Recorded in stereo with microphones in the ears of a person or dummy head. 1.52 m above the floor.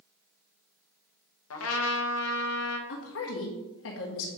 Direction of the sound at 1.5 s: 85° left.